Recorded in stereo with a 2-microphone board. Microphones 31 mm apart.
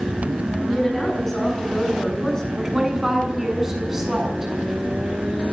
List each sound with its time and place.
0.7 s a woman speaking: 15° left (ahead or behind), 9 m; by 2.5 s 25° left (ahead or behind), 8.5 m
2.6 s a woman speaking: 20° right (ahead or behind), 6.5 m